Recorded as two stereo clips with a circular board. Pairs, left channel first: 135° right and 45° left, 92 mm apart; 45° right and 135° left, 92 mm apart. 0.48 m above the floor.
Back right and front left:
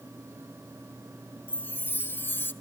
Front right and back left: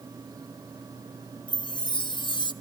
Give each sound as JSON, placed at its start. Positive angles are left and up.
{"t": 1.5, "sound": "a chime", "azimuth_deg": -70, "distance_m": 1.4}